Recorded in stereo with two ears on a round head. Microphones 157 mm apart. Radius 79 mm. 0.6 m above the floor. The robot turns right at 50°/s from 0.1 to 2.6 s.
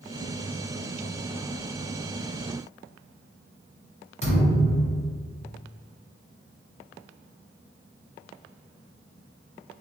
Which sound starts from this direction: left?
A thud, at 4.2 s.